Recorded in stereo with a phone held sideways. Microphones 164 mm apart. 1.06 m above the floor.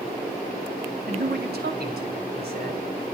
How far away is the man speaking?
About 2.5 m.